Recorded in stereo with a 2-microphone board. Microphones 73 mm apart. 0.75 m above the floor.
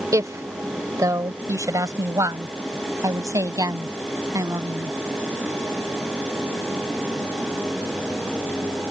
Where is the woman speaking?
50° right (ahead or behind); by 4.9 s 55° right (ahead or behind).